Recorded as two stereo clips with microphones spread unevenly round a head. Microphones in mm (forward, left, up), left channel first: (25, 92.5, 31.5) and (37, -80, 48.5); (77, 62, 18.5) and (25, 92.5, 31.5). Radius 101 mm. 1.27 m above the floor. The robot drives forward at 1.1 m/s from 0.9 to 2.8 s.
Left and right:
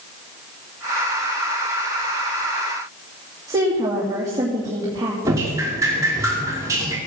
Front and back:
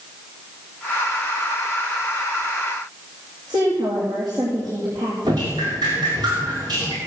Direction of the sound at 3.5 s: 160° right.